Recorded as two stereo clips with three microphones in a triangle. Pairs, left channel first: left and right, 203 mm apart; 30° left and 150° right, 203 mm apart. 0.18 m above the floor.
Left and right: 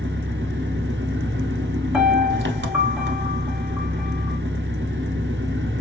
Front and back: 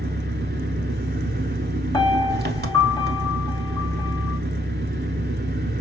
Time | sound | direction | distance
0.0 | an engine running | 115° right | 0.9 m
1.9 | a piano | 15° right | 1.4 m